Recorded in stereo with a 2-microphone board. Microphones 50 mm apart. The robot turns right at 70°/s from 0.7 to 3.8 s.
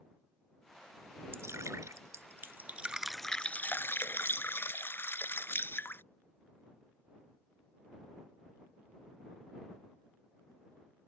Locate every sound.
1.3 s dripping: 130° right; by 6.0 s 45° left